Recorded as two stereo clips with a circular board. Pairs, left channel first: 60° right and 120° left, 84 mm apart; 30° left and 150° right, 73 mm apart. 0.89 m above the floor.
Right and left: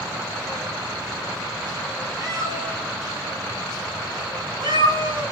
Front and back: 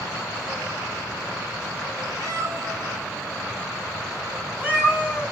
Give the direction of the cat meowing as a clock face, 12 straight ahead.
6 o'clock.